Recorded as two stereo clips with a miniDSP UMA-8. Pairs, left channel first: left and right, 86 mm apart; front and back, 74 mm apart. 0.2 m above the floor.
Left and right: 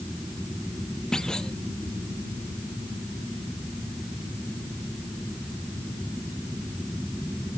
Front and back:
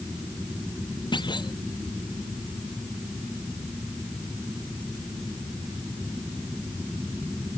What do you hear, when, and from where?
1.1 s a clunk: 5° left